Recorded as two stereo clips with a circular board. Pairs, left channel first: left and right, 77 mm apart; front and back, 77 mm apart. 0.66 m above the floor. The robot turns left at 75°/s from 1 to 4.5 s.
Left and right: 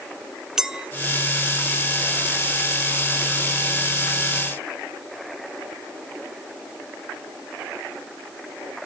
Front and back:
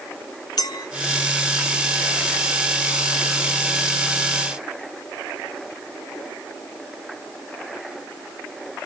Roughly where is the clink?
Ahead.